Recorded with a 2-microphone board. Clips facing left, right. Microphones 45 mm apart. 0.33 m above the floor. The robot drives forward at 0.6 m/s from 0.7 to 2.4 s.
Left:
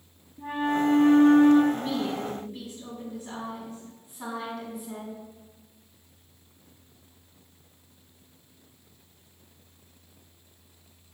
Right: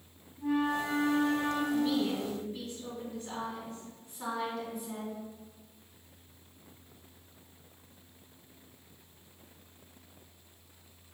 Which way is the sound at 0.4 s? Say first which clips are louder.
Left 4 dB; 35° left (ahead or behind).